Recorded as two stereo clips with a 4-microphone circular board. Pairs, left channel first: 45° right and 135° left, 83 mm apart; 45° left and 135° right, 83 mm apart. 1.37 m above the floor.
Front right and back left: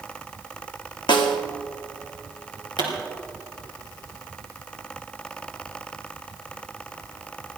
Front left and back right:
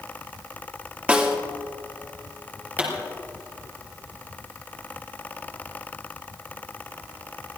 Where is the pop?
65° right, 4 m.